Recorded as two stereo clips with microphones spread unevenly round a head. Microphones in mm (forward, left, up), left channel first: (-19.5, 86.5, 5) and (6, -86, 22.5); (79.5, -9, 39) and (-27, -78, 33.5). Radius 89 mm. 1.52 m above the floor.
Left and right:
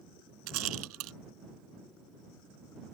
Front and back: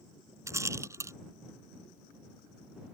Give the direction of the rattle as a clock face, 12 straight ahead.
3 o'clock.